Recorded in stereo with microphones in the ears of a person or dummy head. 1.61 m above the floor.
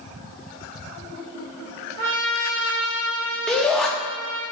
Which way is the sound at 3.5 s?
5° left (ahead or behind).